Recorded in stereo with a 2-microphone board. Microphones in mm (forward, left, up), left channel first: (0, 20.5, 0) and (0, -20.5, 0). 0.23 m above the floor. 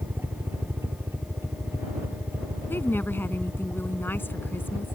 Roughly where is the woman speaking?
Left.